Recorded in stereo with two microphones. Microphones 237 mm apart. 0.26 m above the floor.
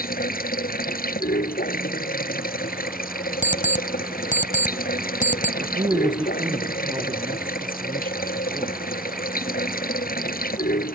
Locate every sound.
0.0 s running water: 40° left (ahead or behind)
3.4 s an alarm clock: 35° left (ahead or behind)
5.6 s a man speaking: 20° right (ahead or behind)